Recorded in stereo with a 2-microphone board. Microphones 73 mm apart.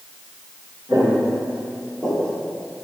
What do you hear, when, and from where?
0.9 s footsteps: 25° right (ahead or behind), 1.9 m; by 2.4 s 20° left (ahead or behind), 0.9 m